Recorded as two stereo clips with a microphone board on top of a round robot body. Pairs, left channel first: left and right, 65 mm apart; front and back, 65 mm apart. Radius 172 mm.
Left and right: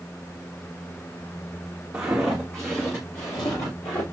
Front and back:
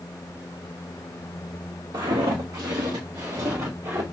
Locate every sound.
1.9 s footsteps: 165° right, 1.3 m; by 4.0 s 125° left, 2 m